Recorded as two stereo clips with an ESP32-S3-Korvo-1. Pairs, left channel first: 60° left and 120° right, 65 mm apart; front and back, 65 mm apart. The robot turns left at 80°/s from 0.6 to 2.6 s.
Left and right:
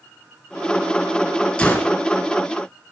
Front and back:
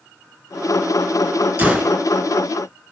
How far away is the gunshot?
About 1.7 m.